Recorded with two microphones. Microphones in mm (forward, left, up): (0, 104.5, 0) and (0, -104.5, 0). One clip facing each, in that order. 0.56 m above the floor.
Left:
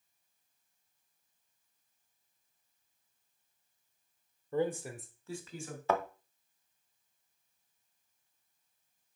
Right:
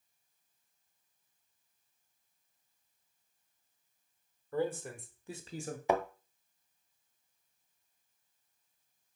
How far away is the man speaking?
About 1.5 m.